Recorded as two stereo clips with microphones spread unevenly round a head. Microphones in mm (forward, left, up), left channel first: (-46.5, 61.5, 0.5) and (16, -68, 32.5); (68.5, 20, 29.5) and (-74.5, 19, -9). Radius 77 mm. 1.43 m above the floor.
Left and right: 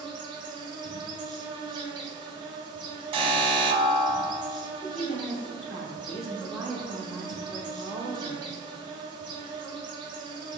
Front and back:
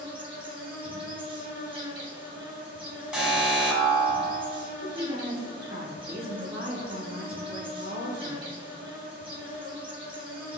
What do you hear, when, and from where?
0.0 s an insect: 125° right, 1.2 m
3.1 s an alarm: 115° right, 0.9 m
4.8 s a woman speaking: 155° right, 1.6 m